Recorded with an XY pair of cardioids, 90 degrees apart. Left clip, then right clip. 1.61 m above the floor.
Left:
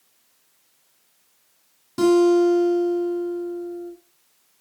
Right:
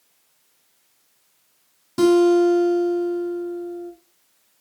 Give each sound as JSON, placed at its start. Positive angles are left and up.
{"t": 2.0, "sound": "a guitar", "azimuth_deg": -25, "distance_m": 9.5}